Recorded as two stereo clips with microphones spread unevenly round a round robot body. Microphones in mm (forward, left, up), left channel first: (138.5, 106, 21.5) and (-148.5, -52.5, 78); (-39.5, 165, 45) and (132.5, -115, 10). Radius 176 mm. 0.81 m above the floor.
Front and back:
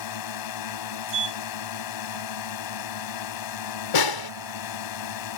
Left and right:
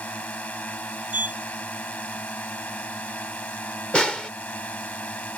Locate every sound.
0.0 s a drone: 35° left
1.1 s a sliding door: 145° right
3.9 s a snare drum: 35° left